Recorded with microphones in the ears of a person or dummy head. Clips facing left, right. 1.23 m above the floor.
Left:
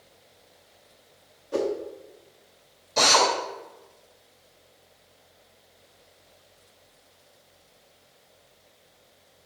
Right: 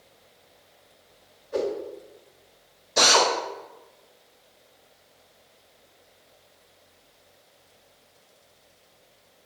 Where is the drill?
15° right (ahead or behind), 1.6 m.